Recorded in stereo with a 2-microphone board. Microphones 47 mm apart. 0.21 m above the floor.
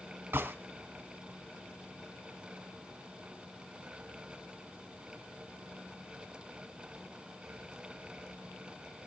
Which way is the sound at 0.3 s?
50° right (ahead or behind).